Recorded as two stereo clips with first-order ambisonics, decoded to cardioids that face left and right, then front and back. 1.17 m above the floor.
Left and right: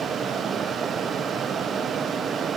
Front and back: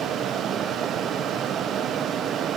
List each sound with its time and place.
Only background noise.